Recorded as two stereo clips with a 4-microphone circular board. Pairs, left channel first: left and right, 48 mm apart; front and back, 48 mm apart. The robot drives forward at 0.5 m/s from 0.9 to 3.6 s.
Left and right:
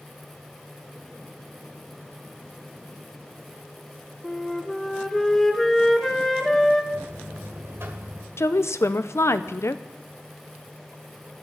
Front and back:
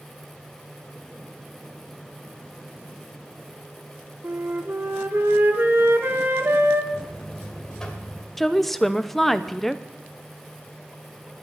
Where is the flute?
165° left, 1.3 m.